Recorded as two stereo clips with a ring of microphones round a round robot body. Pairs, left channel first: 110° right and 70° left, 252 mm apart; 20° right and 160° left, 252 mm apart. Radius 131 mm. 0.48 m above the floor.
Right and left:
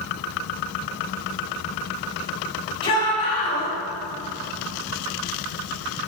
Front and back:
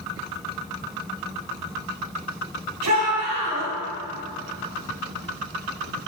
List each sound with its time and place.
2.8 s a shout: straight behind, 3.5 m